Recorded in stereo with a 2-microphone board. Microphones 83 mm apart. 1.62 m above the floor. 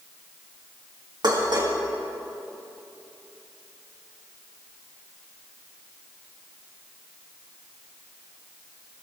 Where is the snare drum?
No snare drum in this recording.